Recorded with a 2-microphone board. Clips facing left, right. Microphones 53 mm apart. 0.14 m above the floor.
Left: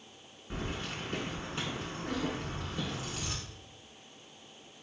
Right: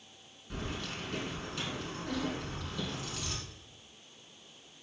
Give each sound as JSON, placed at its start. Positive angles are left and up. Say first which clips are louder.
{"t": 0.5, "sound": "keys jangling", "louder": "left 1 dB", "side_deg": 30, "distance_m": 0.8}